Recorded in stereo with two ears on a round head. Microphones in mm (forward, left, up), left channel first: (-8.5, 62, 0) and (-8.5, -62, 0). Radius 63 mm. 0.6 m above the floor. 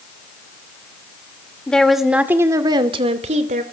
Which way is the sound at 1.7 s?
5° left (ahead or behind).